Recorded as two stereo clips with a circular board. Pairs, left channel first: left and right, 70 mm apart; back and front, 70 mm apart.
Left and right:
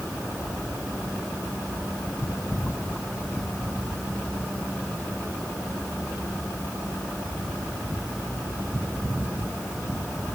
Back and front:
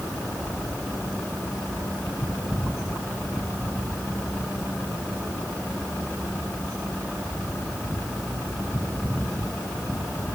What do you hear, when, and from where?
Only background noise.